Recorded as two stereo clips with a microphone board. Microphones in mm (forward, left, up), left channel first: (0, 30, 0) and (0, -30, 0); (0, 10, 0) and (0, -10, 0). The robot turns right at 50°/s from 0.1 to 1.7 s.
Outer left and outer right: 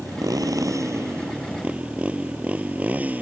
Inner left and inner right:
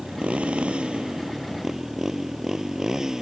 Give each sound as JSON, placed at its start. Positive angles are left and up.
{"t": 0.0, "sound": "a motorcycle", "side_deg": -85}